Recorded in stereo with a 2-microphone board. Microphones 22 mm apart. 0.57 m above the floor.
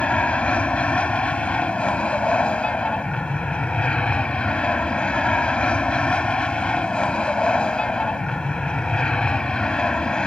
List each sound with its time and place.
0.0 s an aircraft: 60° left (ahead or behind); by 10.3 s 40° left (ahead or behind)